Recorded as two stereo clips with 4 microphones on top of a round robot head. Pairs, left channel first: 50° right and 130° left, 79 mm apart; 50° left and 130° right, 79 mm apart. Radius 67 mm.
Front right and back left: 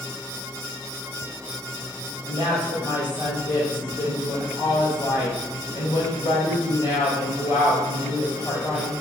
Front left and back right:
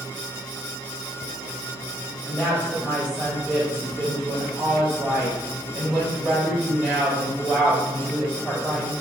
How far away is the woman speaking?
About 1.6 m.